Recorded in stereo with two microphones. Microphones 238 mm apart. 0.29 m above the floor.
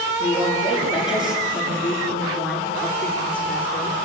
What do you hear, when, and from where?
0.2 s a woman speaking: 5° right (ahead or behind), 8 m; by 4.0 s 10° left (ahead or behind), 5.5 m